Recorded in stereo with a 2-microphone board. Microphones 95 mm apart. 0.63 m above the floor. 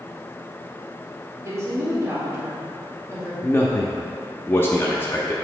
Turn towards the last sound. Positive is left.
turn(degrees=25)  # may be behind; listen again after turning